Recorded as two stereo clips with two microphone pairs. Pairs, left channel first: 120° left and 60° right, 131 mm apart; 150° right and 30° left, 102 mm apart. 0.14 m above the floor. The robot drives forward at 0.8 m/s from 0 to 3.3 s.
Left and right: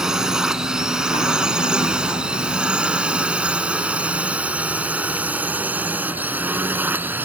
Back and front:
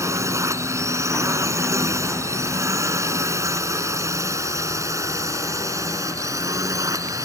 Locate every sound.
0.0 s a drone: 20° left; by 7.3 s 5° left